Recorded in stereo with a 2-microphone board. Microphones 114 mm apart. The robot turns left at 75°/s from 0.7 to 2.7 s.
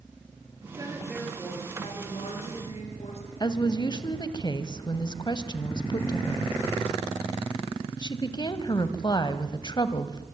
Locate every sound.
0.6 s a woman speaking: 140° right, 7 m; by 3.3 s 70° left, 7 m
3.4 s a woman speaking: 40° left (ahead or behind), 1.8 m